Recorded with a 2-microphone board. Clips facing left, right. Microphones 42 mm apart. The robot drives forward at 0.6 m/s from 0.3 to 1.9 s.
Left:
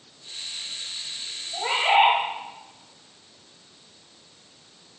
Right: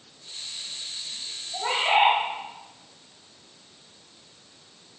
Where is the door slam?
I don't hear a door slam.